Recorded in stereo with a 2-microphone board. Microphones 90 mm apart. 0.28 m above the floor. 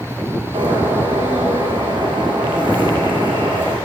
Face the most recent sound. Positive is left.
turn(degrees=-70)  # may be behind; listen again after turning